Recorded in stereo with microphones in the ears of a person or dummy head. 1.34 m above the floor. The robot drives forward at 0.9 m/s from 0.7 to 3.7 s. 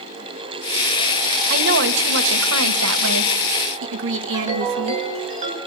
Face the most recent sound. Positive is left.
turn(degrees=-35)  # may be behind; listen again after turning